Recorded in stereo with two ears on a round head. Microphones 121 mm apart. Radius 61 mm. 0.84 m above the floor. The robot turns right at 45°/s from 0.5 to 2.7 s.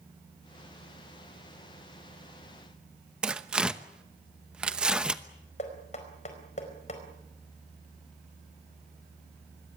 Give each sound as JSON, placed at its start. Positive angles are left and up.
{"t": 3.2, "sound": "tearing paper", "side_deg": -10, "distance_m": 0.9}
{"t": 5.6, "sound": "knocking", "side_deg": 55, "distance_m": 4.5}